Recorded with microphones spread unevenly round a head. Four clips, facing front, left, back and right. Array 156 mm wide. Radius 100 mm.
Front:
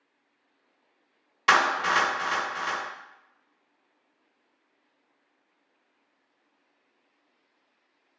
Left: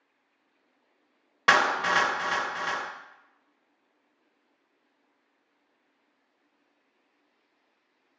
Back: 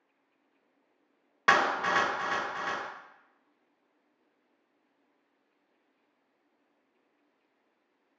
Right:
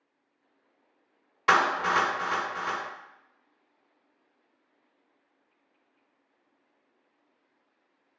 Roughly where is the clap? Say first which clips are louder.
Even, front 3 dB; left.